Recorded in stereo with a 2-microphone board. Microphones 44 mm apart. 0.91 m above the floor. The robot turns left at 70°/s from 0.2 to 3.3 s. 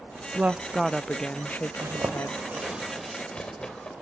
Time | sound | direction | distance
0.3 | a woman speaking | 140° right | 0.7 m
1.8 | a zipper | 85° right | 3 m